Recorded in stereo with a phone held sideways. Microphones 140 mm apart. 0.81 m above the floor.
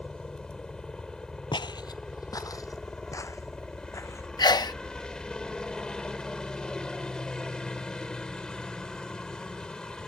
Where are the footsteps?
35° left (ahead or behind); by 4.3 s 20° left (ahead or behind).